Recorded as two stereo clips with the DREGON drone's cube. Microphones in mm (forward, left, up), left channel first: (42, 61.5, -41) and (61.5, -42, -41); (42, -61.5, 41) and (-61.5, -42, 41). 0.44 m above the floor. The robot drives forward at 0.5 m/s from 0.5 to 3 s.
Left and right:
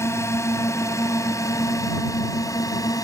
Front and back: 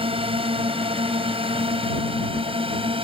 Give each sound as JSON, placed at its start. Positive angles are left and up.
{"t": 0.0, "sound": "a drone", "azimuth_deg": 160}